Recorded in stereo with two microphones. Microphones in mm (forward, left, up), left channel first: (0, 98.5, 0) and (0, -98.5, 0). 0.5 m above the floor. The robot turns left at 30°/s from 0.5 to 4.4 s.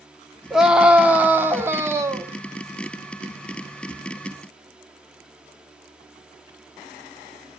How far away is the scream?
About 1.0 m.